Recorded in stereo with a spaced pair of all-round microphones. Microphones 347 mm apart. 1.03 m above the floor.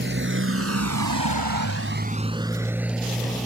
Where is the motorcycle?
30° right (ahead or behind); by 3.5 s centre (ahead or behind).